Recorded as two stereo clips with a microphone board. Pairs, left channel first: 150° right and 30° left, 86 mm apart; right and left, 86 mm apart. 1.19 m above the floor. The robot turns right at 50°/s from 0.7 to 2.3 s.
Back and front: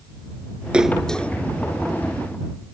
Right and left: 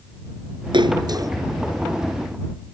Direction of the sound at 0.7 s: 110° left.